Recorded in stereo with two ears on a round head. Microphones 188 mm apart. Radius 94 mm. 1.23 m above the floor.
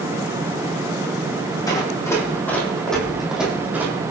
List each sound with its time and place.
1.7 s running footsteps: 20° left (ahead or behind), 3.5 m; by 3.9 s 10° right (ahead or behind), 3.5 m